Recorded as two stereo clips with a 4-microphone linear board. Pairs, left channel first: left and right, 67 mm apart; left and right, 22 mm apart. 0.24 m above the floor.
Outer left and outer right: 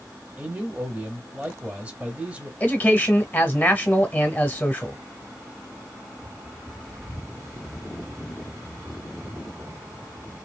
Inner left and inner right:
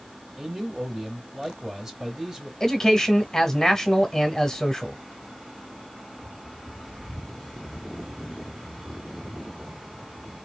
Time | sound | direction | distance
0.4 | a man speaking | 20° right (ahead or behind) | 1.1 m
2.6 | a man speaking | 25° left (ahead or behind) | 1.1 m